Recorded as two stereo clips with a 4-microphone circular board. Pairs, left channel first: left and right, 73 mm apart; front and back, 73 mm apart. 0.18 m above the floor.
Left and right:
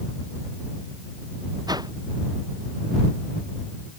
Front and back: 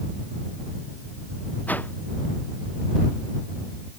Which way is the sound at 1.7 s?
70° right.